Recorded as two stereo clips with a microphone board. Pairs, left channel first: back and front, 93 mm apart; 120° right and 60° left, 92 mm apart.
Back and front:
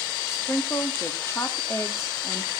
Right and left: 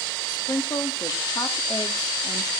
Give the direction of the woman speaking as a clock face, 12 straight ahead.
5 o'clock.